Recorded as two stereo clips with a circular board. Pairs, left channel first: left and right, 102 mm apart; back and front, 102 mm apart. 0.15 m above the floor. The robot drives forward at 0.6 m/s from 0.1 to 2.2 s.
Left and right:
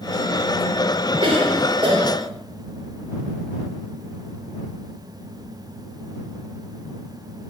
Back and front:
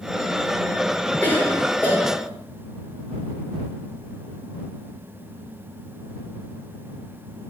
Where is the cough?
110° right, 3.5 m; by 2.3 s 120° right, 3.5 m.